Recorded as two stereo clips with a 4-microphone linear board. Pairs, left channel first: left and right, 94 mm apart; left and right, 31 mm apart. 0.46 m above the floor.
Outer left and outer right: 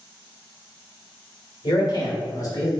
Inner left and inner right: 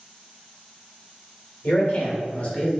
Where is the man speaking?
50° left (ahead or behind), 1.5 m; by 2.7 s 35° left (ahead or behind), 1.3 m.